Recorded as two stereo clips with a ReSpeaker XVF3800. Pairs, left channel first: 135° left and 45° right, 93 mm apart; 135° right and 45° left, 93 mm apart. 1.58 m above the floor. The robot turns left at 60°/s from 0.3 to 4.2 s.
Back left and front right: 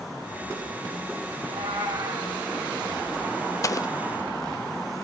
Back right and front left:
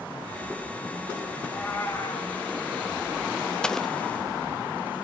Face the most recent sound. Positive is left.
turn(degrees=115)